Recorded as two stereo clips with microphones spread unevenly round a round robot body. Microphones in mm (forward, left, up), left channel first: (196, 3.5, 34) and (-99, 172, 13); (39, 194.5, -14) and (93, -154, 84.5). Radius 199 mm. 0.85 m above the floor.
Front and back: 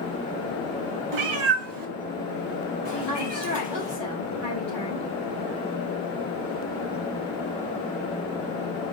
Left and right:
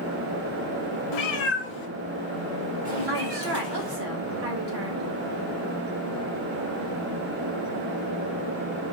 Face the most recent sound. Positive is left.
turn(degrees=-115)